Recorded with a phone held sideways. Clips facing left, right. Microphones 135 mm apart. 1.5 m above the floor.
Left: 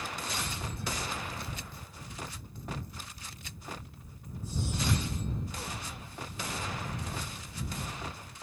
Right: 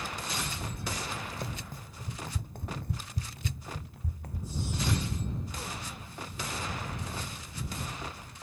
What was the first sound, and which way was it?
Running footsteps, 45° right (ahead or behind).